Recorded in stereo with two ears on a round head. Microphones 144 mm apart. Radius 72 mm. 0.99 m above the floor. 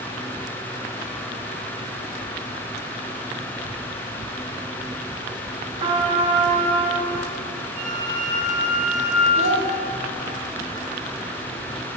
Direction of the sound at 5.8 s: 35° right (ahead or behind).